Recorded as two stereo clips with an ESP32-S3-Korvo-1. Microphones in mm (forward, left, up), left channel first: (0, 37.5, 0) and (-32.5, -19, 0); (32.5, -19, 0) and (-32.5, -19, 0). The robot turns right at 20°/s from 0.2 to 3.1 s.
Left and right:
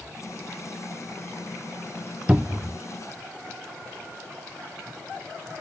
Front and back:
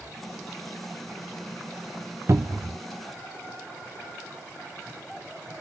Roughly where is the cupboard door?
Behind.